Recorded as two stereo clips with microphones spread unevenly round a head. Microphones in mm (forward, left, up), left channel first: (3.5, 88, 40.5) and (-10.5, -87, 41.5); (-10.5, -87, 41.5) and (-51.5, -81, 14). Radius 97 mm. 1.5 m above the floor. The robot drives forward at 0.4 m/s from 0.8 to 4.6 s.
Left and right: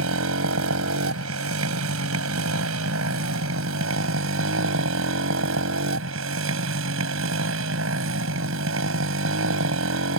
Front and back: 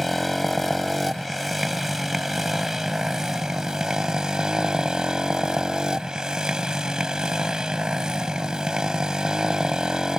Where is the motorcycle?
85° right; by 10.2 s 105° right.